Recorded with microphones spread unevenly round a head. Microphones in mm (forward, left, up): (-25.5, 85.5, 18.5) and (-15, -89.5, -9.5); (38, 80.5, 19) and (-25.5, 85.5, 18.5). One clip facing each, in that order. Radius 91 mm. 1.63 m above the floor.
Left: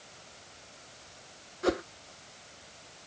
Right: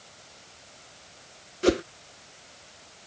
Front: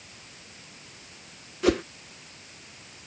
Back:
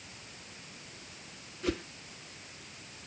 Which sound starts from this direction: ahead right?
A whoosh, at 1.6 s.